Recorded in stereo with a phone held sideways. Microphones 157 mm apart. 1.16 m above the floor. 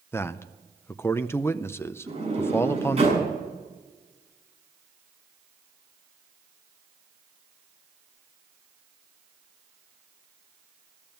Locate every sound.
0.1 s a man speaking: 15° left (ahead or behind), 0.6 m
2.1 s a sliding door: 40° right (ahead or behind), 6.5 m